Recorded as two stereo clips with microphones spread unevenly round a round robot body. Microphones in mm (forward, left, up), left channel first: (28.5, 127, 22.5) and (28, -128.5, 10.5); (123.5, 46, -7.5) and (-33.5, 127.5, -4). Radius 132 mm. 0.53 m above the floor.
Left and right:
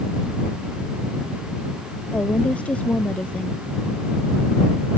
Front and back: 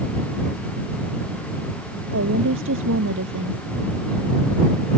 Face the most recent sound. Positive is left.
turn(degrees=175)